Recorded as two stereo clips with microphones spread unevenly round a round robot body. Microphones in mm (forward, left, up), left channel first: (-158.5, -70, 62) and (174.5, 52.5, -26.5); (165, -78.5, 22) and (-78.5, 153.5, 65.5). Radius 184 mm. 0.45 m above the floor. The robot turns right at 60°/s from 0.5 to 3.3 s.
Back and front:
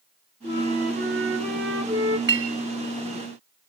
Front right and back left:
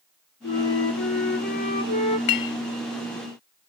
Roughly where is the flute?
Ahead right.